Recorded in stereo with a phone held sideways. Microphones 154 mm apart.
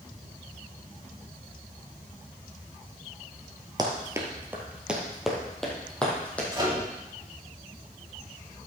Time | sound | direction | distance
3.8 | running footsteps | 25° right (ahead or behind) | 1.7 m
6.5 | a microwave | 30° right (ahead or behind) | 2.5 m